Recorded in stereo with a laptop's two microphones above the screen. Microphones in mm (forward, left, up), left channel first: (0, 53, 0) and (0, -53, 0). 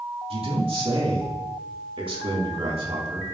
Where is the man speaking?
55° right (ahead or behind), 2 m.